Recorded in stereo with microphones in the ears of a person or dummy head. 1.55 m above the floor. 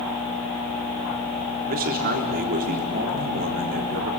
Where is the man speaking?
50° right (ahead or behind), 3.5 m.